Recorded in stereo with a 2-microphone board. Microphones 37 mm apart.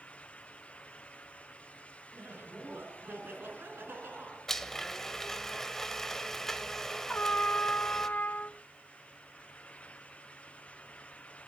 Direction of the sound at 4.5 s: 10° left (ahead or behind).